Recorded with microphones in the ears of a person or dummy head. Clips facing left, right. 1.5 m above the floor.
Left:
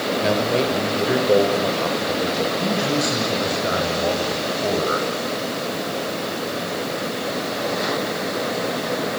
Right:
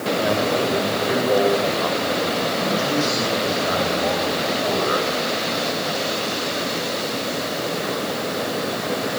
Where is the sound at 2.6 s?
25° left (ahead or behind), 7 m.